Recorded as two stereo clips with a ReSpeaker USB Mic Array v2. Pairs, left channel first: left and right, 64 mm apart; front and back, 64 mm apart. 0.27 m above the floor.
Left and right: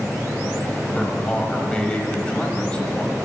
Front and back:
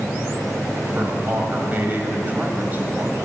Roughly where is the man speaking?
Behind left.